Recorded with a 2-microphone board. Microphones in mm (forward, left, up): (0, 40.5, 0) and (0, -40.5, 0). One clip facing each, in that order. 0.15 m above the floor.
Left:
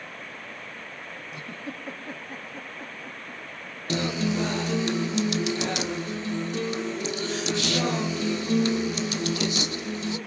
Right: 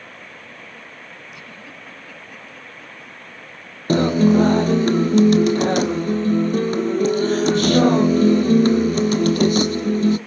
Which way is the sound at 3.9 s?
45° right (ahead or behind).